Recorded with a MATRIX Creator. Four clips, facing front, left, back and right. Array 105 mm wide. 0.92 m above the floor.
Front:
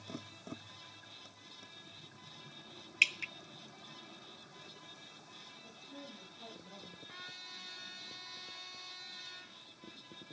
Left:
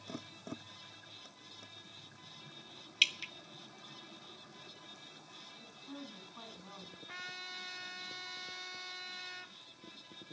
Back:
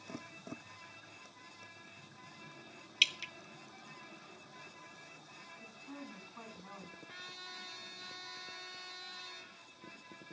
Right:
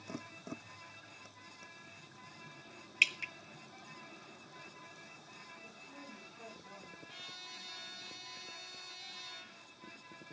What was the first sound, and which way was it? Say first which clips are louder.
Dripping: right 3 dB, front 3 dB; 45° right.